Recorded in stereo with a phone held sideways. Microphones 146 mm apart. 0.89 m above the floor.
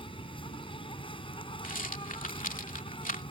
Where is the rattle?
70° left (ahead or behind).